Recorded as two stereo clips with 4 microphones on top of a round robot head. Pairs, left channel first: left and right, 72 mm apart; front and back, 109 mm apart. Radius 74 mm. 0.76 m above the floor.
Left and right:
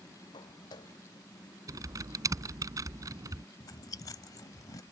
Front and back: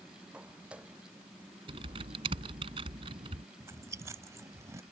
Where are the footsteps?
100° left.